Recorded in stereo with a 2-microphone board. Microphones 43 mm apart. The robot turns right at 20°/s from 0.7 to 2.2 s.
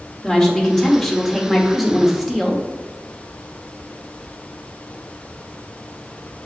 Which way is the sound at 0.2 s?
10° left (ahead or behind).